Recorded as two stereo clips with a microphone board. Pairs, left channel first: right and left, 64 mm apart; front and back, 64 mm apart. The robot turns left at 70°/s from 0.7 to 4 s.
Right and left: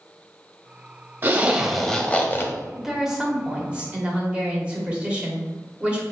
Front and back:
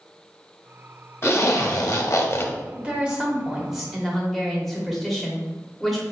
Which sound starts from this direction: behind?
A woman speaking, at 2.8 s.